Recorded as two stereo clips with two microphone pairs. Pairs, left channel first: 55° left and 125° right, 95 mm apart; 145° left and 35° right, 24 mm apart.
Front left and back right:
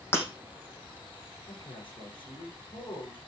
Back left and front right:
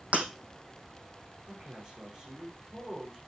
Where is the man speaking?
20° left, 8 m.